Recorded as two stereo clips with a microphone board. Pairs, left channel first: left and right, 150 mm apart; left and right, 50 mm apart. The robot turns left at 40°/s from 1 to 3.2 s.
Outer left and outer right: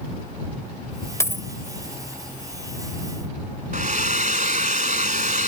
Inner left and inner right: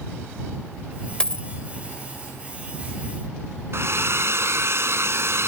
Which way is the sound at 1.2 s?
20° left (ahead or behind).